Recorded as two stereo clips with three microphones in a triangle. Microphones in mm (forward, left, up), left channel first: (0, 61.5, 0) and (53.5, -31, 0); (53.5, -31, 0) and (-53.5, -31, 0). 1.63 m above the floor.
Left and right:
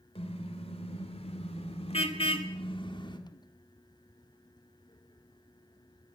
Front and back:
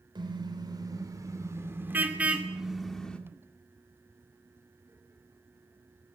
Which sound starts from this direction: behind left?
A car horn, at 0.1 s.